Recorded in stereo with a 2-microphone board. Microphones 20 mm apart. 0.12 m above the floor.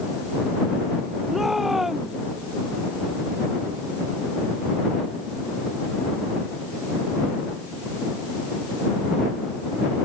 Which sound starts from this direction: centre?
A shout, at 1.3 s.